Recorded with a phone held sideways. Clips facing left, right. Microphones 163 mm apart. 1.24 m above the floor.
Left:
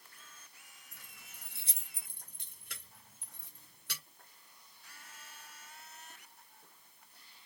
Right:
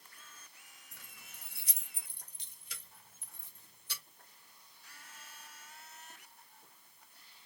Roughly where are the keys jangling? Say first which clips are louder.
Right 1 dB; centre.